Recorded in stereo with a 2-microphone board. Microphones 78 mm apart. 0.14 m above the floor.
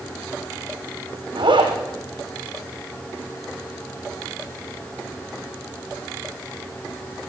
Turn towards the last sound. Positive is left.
turn(degrees=-80)